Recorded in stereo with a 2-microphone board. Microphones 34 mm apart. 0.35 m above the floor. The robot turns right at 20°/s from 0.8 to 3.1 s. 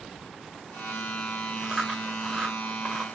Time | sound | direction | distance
1.6 | chewing | 15° right (ahead or behind) | 1.4 m